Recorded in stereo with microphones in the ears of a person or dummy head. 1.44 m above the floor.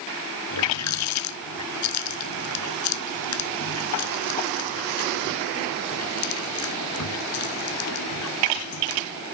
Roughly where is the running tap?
Left.